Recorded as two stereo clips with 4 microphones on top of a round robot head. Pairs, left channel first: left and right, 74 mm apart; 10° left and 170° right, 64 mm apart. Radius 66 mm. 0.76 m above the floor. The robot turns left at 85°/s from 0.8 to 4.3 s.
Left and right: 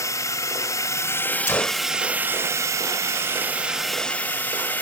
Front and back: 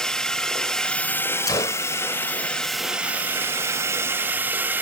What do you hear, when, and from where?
0.0 s a drone: 85° left; by 4.8 s 145° left
1.5 s a gunshot: 35° left; by 1.9 s 5° left